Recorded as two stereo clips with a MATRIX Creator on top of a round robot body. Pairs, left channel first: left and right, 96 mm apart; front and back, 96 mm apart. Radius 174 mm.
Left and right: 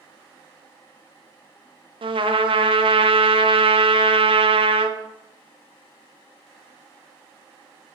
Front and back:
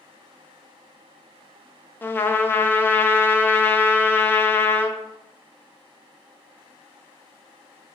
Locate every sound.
2.0 s a trumpet: 65° right, 0.7 m